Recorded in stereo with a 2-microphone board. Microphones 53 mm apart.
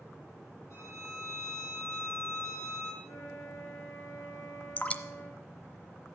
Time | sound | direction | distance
0.7 | a violin | 65° left (ahead or behind) | 8 m
3.0 | a flute | 65° left (ahead or behind) | 6.5 m
4.8 | dripping | 25° left (ahead or behind) | 0.8 m